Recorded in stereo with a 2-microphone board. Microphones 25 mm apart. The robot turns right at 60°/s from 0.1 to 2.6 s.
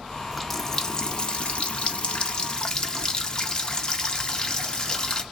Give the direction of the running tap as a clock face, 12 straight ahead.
12 o'clock.